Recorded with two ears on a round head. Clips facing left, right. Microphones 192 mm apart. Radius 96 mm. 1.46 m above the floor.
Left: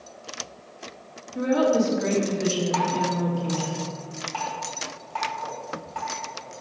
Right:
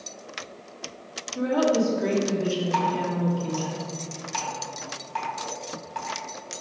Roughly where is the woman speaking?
Left.